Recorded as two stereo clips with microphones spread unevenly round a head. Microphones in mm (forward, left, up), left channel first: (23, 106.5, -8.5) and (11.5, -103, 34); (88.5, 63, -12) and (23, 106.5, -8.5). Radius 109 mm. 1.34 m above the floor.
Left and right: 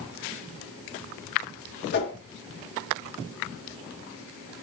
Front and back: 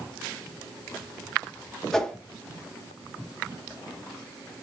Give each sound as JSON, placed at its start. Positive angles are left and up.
{"t": 1.9, "sound": "a whoosh", "azimuth_deg": 50, "distance_m": 0.7}